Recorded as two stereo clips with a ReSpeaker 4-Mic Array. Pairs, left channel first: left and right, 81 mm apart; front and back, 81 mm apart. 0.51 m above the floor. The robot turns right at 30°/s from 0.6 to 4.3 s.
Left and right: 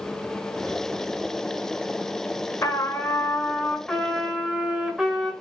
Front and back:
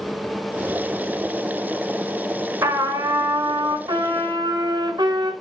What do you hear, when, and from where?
2.6 s a trumpet: 135° left, 1.6 m; by 5.3 s 170° right, 1.6 m